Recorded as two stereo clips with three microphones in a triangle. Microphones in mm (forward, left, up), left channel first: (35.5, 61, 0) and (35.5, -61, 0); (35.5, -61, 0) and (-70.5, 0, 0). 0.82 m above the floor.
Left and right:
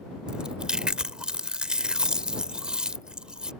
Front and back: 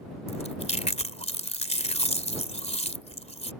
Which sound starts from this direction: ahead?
Chewing, at 0.3 s.